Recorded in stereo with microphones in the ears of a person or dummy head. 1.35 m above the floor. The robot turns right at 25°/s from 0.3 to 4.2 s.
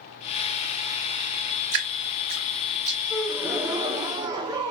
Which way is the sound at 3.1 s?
5° left (ahead or behind).